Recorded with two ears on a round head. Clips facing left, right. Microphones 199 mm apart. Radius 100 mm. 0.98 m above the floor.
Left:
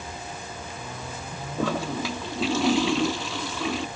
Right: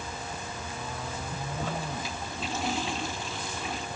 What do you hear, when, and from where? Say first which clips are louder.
1.6 s a toilet flushing: left 10 dB; 60° left (ahead or behind)